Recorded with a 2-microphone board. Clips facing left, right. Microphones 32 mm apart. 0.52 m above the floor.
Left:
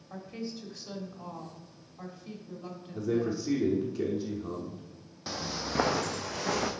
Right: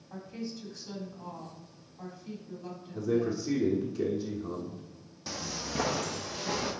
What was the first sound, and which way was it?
A woman speaking, 40° left (ahead or behind).